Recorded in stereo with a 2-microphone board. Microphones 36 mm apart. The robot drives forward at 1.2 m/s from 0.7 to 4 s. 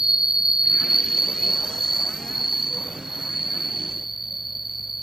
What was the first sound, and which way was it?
An insect, 10° right (ahead or behind).